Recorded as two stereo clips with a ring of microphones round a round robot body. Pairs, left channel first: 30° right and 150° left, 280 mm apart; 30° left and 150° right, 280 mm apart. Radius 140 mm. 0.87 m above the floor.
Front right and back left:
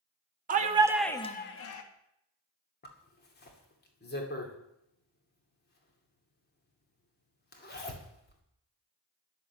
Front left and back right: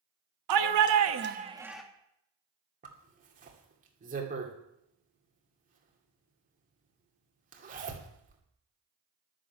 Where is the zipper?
85° right, 2.5 m.